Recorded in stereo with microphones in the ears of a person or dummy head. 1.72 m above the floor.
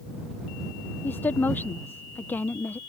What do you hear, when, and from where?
1.0 s a woman speaking: 15° left (ahead or behind)